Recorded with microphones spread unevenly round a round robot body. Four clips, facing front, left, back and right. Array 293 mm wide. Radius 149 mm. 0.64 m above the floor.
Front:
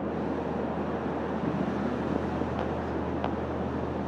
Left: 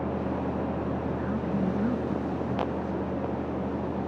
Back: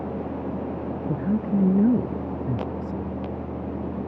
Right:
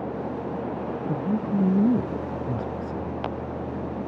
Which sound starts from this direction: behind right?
A man speaking, at 1.1 s.